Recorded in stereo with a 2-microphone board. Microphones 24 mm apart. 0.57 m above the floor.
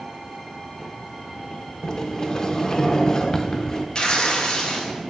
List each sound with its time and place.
1.8 s a sliding door: 30° left (ahead or behind), 0.8 m
4.0 s tearing paper: 40° left (ahead or behind), 1.7 m